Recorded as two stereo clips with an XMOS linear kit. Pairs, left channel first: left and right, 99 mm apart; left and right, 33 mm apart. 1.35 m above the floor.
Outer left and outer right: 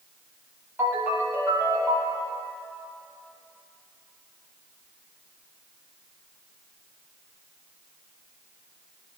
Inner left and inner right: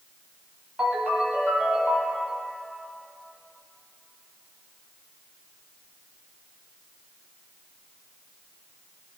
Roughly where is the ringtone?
Right.